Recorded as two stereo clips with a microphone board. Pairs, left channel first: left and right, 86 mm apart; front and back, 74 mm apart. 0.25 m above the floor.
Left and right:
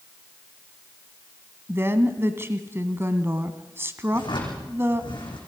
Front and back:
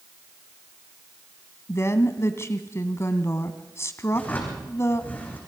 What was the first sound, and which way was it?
A woman speaking, 35° right.